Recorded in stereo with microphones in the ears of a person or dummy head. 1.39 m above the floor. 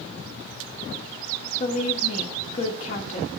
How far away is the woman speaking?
About 1.0 m.